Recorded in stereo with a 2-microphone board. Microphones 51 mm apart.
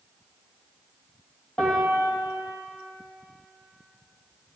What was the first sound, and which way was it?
A piano, 20° left (ahead or behind).